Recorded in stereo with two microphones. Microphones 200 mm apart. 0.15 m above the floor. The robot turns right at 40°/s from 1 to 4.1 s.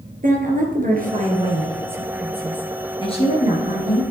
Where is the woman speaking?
50° right, 3 m; by 4.0 s 70° left, 3 m.